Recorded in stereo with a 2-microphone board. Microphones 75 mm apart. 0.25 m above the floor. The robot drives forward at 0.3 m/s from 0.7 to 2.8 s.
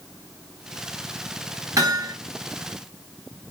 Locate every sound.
1.8 s hammering: 45° right (ahead or behind), 4 m